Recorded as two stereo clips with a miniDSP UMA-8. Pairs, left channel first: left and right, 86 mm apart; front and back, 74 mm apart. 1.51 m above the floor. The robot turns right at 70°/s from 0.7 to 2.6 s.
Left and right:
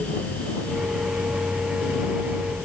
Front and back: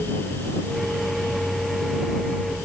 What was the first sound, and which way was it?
Only background noise.